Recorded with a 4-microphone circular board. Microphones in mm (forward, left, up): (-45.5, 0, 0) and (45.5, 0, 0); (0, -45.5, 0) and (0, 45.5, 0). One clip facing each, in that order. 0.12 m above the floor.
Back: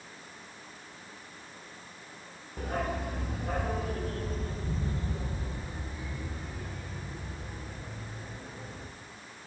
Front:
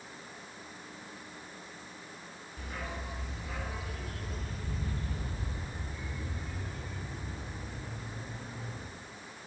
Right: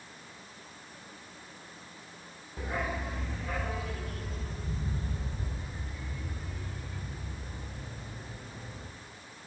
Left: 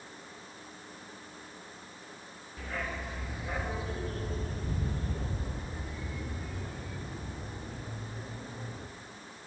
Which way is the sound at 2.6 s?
155° right.